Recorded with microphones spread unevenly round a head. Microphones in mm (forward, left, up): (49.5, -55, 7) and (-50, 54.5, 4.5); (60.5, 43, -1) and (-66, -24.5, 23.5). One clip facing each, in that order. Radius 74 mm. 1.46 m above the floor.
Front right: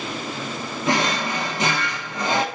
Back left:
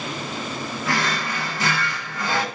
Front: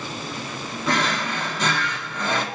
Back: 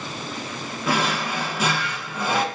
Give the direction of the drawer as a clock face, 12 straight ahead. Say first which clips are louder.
Front right 4 dB, even; 3 o'clock.